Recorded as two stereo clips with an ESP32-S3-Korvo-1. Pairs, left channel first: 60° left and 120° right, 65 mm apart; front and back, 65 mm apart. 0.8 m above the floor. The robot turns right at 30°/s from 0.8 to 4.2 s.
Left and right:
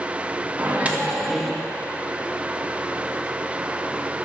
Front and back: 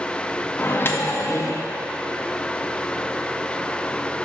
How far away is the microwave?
About 0.5 m.